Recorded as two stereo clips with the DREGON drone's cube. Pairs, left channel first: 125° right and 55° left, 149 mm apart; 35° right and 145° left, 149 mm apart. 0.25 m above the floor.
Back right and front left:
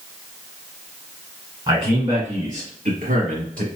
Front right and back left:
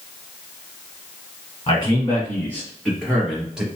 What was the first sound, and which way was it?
A man speaking, 10° left.